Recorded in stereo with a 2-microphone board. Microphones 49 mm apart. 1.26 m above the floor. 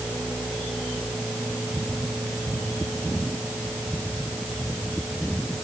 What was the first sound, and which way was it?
Only background noise.